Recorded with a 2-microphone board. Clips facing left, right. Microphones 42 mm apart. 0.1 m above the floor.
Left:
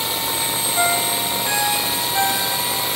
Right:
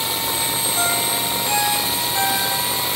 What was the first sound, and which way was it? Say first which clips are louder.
A ringtone: left 4 dB; 30° left (ahead or behind).